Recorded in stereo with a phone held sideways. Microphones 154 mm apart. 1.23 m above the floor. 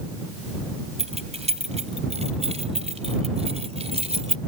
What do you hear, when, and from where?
1.0 s keys jangling: 45° right (ahead or behind)